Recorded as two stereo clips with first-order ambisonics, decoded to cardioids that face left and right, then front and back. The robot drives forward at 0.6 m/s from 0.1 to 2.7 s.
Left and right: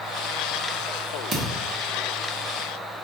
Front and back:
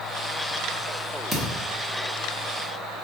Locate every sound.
1.3 s a thud: 120° right, 1.2 m; by 1.6 s 135° right, 1.3 m